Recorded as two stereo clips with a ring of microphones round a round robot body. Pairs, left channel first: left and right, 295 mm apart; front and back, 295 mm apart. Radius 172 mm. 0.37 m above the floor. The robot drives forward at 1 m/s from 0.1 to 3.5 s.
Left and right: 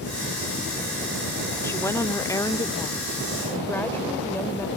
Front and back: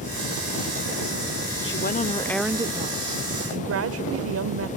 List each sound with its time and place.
1.6 s a woman speaking: 10° left; by 4.7 s 170° left